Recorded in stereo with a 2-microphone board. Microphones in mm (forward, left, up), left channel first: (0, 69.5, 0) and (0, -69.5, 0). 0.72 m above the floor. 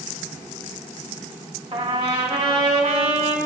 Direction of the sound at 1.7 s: 40° right (ahead or behind).